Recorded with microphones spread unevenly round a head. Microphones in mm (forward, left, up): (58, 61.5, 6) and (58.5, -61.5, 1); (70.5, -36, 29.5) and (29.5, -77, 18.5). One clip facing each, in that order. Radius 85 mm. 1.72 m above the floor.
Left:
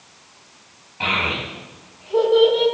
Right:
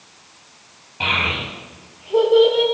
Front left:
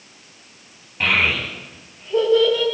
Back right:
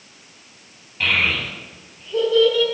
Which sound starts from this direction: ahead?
A child speaking, at 1.0 s.